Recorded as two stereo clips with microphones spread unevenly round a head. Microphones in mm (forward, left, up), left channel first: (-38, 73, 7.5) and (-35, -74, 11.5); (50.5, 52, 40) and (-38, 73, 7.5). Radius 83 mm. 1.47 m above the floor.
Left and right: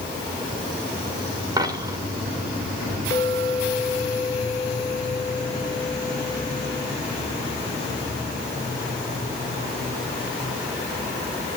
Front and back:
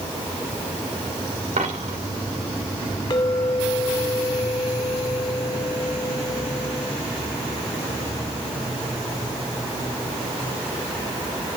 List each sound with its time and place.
1.6 s a dropped coin: 150° right, 2.5 m
3.1 s a clink: 20° left, 3.5 m